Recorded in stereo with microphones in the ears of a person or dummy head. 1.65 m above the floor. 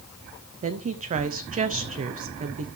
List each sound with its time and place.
0.6 s a woman speaking: 35° right (ahead or behind), 0.7 m